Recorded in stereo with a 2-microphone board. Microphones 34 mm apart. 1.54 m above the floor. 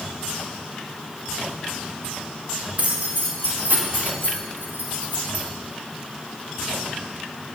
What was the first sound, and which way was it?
Keys jangling, 50° right (ahead or behind).